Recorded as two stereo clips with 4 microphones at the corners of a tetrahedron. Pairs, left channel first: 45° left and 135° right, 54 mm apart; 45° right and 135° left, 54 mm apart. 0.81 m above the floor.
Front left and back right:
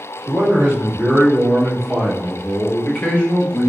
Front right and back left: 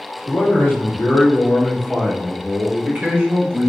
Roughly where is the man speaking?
Right.